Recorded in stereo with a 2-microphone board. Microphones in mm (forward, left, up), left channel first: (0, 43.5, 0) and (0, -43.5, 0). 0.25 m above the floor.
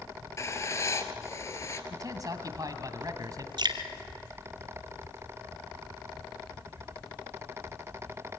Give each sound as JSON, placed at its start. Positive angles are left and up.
{"t": 0.4, "sound": "writing", "side_deg": 35, "distance_m": 1.2}
{"t": 1.9, "sound": "a man speaking", "side_deg": -45, "distance_m": 1.9}
{"t": 3.6, "sound": "dripping", "side_deg": -60, "distance_m": 1.3}